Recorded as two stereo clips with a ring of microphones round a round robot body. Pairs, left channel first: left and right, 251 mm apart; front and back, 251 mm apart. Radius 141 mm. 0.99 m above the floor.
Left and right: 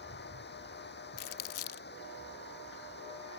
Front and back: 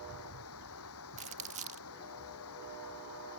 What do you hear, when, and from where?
0.0 s running water: 40° left
1.2 s crumpling: 115° left